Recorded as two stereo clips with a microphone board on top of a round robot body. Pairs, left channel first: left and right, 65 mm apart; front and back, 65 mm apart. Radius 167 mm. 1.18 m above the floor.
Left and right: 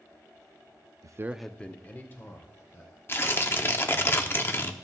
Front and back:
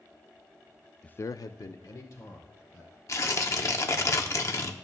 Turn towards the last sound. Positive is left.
turn(degrees=35)